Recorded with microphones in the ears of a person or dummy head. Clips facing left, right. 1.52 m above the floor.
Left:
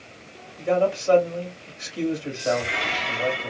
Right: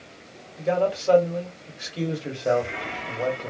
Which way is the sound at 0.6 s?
30° right (ahead or behind).